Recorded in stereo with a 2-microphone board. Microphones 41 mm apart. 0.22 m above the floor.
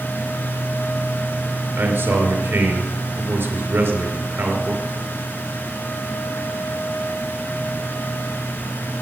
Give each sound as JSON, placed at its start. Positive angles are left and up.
{"t": 1.8, "sound": "a man speaking", "side_deg": -55, "distance_m": 3.5}